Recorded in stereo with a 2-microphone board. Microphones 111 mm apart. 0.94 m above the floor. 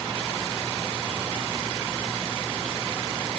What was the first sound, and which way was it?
Only background noise.